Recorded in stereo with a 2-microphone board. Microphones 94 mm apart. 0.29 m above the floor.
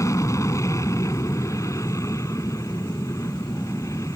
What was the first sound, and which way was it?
An aircraft, 30° left (ahead or behind).